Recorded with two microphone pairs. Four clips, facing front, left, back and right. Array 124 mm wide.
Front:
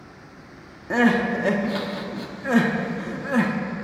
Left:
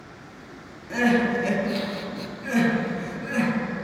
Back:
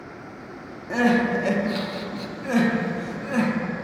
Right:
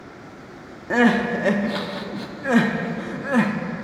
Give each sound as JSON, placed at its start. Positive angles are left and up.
{"t": 0.9, "sound": "crying", "azimuth_deg": -75, "distance_m": 0.6}